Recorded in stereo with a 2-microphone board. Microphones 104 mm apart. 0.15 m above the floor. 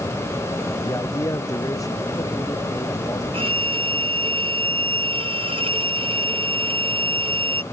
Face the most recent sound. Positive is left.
turn(degrees=-60)  # may be behind; listen again after turning